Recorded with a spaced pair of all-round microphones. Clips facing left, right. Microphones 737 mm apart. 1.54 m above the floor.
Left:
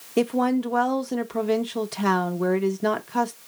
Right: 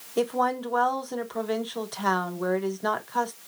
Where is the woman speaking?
55° left (ahead or behind), 0.8 m.